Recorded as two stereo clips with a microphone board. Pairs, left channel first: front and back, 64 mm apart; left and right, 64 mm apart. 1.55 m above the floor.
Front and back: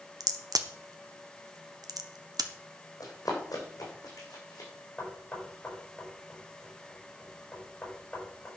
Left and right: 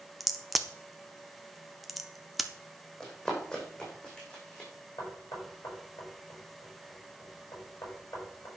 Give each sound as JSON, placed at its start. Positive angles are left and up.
{"t": 0.2, "sound": "a crack", "azimuth_deg": 180, "distance_m": 1.0}
{"t": 3.0, "sound": "running footsteps", "azimuth_deg": 10, "distance_m": 5.5}
{"t": 5.0, "sound": "knocking", "azimuth_deg": 60, "distance_m": 6.0}